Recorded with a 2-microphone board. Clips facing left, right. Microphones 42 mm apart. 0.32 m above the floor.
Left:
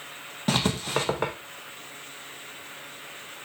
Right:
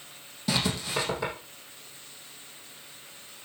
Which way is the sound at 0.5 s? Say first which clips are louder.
Left 3 dB; 50° left (ahead or behind).